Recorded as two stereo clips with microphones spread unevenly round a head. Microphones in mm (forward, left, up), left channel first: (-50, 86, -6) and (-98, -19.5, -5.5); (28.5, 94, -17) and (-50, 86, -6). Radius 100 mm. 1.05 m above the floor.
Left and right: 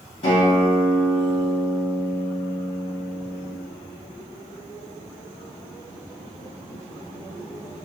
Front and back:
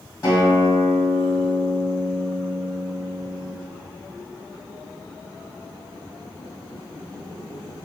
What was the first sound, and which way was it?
A guitar, 50° left.